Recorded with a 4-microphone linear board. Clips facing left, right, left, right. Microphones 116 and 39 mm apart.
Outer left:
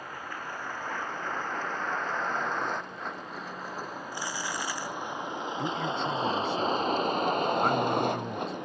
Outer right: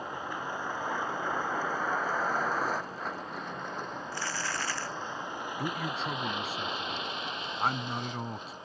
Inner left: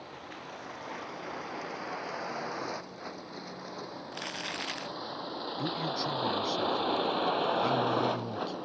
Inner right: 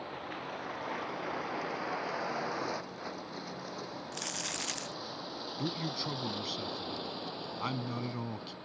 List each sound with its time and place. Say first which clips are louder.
0.0 s a vehicle: outer right 3 dB, inner right 3 dB; 15° right (ahead or behind); by 8.6 s 70° left (ahead or behind)
4.1 s crumpling: outer left 1 dB, inner left 4 dB; 15° left (ahead or behind)
5.6 s a man speaking: outer left 3 dB, inner left 3 dB; 5° right (ahead or behind)